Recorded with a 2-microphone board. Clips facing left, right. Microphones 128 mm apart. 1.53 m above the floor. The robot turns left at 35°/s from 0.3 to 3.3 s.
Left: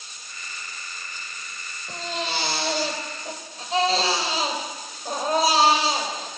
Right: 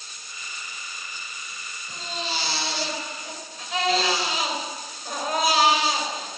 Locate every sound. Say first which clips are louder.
1.9 s a baby crying: left 3 dB; 85° left, 4 m; by 6.3 s 35° left, 4 m